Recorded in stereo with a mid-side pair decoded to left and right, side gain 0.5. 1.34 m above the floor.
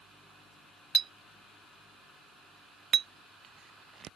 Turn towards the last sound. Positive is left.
turn(degrees=-45)